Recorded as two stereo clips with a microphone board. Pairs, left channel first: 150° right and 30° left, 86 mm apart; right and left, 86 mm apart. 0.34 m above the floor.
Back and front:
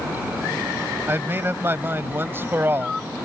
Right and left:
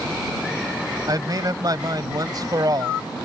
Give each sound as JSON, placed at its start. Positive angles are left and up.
{"t": 1.1, "sound": "a man speaking", "azimuth_deg": 85}